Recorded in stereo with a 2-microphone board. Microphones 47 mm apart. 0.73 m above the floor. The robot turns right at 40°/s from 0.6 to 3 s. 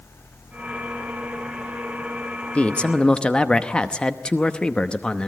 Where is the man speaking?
25° left (ahead or behind), 0.9 m; by 5.3 s 20° left (ahead or behind), 0.9 m.